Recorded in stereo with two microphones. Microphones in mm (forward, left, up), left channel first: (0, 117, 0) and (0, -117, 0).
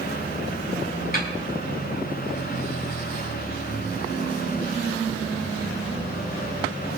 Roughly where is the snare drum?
Left.